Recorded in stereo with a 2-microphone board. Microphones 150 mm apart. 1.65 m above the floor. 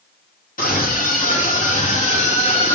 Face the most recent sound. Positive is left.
turn(degrees=40)  # may be behind; listen again after turning